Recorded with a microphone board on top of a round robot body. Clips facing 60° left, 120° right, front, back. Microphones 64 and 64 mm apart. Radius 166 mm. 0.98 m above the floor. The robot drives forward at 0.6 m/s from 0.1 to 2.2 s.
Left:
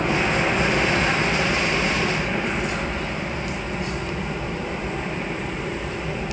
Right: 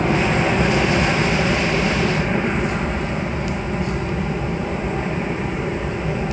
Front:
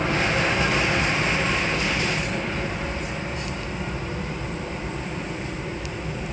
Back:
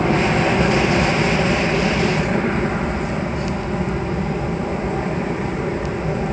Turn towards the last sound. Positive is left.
turn(degrees=170)